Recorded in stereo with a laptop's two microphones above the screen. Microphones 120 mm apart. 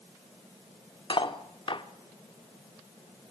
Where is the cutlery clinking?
45° left (ahead or behind), 1.4 m.